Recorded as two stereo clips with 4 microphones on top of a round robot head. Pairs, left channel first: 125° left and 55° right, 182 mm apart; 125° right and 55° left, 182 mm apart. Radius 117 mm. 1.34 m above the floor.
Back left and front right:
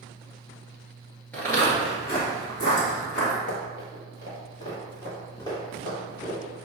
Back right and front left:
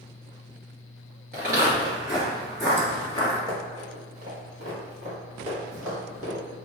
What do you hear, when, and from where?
1.3 s footsteps: 50° left, 1.5 m; by 3.4 s 165° left, 1.9 m
3.5 s running footsteps: 125° left, 1.9 m; by 6.4 s 50° left, 4.5 m